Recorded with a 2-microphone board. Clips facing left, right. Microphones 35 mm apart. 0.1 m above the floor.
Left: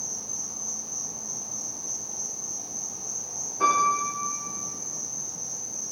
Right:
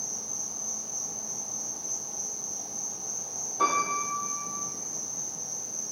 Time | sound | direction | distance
0.0 | an insect | 5° right (ahead or behind) | 0.8 m
3.6 | a piano | 60° right (ahead or behind) | 1.6 m